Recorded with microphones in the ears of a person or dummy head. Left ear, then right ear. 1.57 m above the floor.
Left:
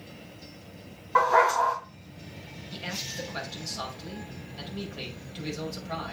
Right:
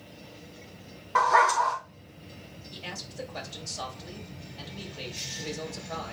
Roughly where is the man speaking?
Left.